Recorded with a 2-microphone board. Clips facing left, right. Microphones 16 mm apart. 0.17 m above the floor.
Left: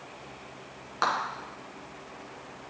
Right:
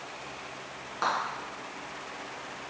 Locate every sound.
1.0 s a clap: 30° left (ahead or behind), 2.0 m